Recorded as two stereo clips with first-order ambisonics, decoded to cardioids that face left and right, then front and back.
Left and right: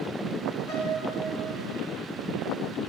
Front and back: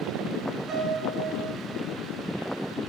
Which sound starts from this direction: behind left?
A piano, at 0.7 s.